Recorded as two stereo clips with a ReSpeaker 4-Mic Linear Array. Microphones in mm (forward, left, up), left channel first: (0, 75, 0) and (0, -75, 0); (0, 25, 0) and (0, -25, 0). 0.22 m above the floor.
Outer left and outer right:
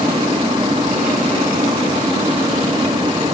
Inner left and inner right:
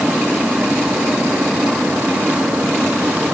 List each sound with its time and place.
Only background noise.